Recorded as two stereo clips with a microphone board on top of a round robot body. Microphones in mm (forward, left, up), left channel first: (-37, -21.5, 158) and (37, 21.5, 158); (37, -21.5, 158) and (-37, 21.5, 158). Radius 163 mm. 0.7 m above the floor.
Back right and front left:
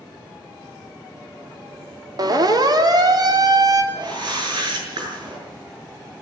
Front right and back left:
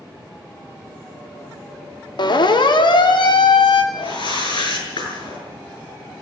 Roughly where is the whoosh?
Ahead.